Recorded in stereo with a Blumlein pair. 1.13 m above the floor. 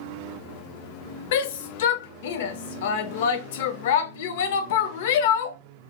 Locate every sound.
1.3 s a shout: 55° left, 0.5 m